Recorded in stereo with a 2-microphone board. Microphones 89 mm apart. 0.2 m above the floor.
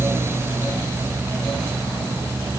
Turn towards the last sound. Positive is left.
No sound to turn to.